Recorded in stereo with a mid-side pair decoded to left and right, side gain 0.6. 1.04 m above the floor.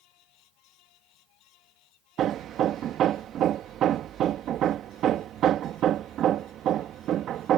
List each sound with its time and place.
0.0 s a fan: 70° left
2.2 s hammering: 55° right